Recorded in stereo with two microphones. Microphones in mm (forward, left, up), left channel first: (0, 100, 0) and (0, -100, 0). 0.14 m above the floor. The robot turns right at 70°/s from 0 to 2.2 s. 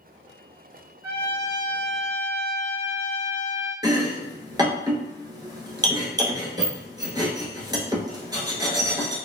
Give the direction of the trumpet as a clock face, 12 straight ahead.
1 o'clock.